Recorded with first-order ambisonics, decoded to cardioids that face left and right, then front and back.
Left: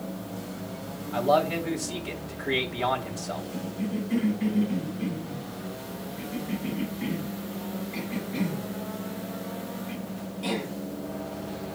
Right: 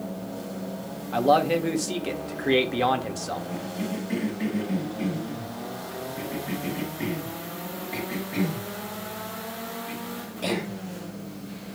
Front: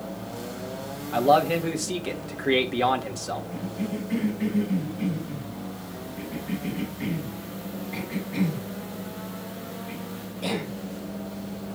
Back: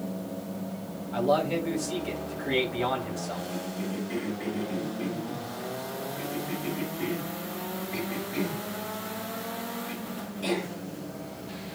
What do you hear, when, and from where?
1.1 s a man speaking: 50° right, 2.5 m
3.5 s a cough: 75° right, 6 m